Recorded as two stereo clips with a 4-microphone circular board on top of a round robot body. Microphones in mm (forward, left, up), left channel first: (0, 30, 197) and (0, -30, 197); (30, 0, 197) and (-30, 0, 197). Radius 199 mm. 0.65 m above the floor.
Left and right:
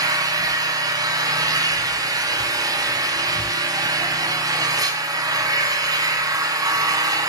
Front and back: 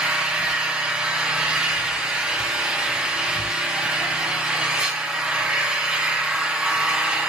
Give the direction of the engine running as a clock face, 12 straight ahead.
4 o'clock.